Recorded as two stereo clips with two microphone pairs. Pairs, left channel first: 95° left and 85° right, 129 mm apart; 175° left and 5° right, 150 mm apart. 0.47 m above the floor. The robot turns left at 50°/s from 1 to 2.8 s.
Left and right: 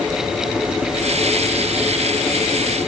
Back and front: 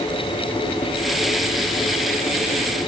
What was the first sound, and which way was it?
Only background noise.